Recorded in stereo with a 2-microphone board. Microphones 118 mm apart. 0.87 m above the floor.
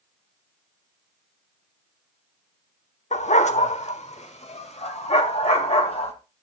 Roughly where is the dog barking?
Left.